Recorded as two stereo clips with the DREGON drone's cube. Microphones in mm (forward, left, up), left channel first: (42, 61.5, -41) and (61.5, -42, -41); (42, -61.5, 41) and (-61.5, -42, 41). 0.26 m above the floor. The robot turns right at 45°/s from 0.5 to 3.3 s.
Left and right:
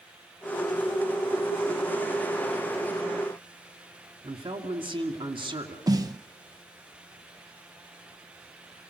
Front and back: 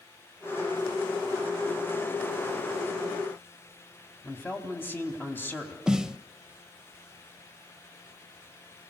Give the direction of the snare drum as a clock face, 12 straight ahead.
4 o'clock.